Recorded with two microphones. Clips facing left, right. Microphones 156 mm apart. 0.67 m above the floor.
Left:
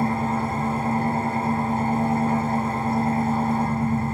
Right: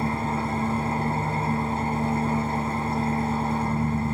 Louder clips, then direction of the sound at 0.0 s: Left 3 dB; 50° left (ahead or behind).